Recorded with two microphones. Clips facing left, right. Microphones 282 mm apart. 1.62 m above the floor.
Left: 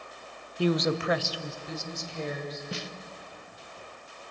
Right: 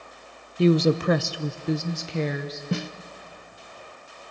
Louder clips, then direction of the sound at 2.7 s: Right 9 dB; 60° right (ahead or behind).